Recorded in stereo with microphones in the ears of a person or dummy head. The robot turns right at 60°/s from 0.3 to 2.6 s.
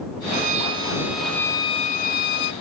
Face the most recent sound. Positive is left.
turn(degrees=85)